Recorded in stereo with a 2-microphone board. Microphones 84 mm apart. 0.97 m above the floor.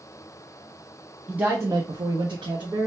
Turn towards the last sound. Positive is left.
turn(degrees=-75)  # may be behind; listen again after turning